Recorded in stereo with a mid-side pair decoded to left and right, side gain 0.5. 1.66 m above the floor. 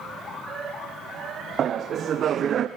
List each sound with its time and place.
1.6 s laughter: 50° right, 1.0 m